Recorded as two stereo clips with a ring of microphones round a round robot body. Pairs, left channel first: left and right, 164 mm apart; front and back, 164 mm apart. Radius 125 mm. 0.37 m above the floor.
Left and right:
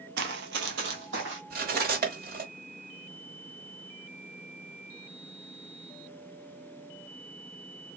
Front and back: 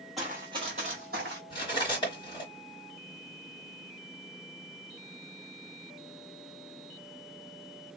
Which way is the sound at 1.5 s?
70° right.